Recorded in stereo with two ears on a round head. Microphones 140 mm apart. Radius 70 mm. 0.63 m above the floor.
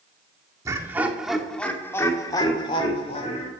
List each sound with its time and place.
0.7 s laughter: 20° right (ahead or behind), 1.7 m; by 3.5 s 45° left (ahead or behind), 2.5 m